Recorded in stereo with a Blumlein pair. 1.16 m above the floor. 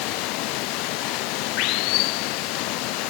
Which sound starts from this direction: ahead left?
Running water, at 0.0 s.